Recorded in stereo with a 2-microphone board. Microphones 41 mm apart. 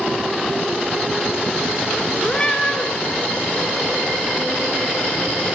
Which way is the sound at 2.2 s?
20° left (ahead or behind).